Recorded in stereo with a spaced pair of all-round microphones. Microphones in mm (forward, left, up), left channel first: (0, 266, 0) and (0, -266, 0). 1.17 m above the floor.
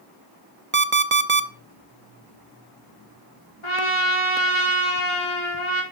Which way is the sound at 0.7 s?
25° right (ahead or behind).